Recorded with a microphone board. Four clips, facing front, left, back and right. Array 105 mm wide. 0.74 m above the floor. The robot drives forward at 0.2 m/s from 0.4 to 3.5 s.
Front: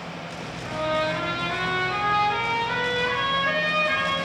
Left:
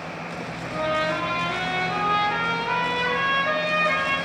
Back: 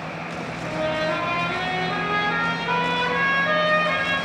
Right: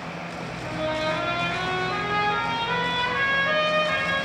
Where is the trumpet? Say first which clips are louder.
Left 2 dB, even; straight behind, 0.9 m.